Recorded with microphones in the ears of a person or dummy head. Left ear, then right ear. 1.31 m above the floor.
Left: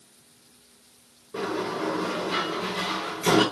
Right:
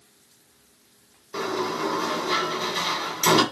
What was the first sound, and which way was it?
A sliding door, 50° right (ahead or behind).